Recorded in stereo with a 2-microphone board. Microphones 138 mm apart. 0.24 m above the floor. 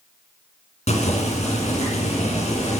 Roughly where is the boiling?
Left.